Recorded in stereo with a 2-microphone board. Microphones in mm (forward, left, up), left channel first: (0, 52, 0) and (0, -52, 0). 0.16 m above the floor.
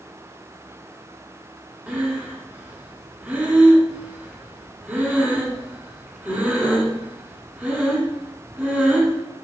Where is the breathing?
15° right (ahead or behind), 0.7 m.